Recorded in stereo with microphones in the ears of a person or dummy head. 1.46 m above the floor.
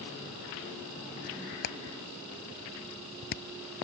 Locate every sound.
1.6 s hammering: 55° left (ahead or behind)